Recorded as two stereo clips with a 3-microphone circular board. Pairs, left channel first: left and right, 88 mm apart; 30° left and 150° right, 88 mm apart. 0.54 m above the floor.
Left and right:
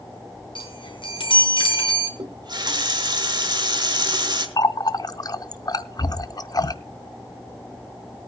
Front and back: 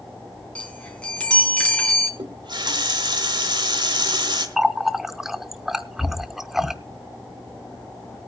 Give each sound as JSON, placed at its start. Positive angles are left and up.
{"t": 0.6, "sound": "a chime", "azimuth_deg": 105, "distance_m": 3.0}
{"t": 2.2, "sound": "a running tap", "azimuth_deg": -120, "distance_m": 1.5}
{"t": 4.6, "sound": "a running tap", "azimuth_deg": 125, "distance_m": 0.6}